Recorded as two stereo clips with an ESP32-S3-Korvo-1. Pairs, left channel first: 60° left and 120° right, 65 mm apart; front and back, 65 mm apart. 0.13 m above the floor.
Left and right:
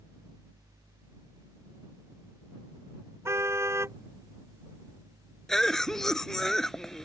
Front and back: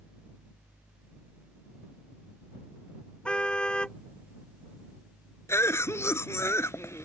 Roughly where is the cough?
Ahead.